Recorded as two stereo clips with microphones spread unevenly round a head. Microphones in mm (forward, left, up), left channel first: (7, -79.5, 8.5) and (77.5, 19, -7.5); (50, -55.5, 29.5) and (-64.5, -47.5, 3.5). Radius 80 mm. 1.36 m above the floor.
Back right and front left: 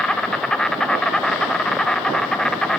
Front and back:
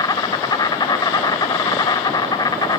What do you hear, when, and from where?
0.0 s an insect: 25° right, 0.7 m